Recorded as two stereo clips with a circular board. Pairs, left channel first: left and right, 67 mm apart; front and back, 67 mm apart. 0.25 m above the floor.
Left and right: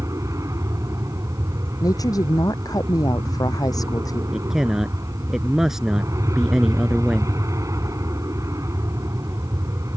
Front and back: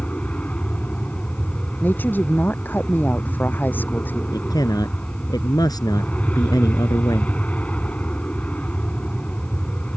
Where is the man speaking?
5° right.